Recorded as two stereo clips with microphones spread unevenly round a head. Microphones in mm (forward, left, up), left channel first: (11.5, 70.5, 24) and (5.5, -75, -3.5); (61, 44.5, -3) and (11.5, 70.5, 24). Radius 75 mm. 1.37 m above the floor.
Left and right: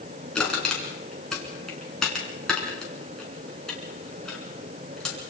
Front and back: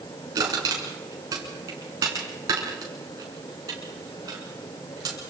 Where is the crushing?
170° left, 5 m.